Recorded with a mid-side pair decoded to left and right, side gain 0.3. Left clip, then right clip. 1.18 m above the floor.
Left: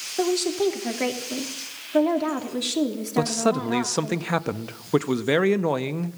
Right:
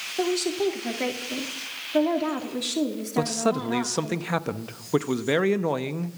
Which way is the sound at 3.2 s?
15° left.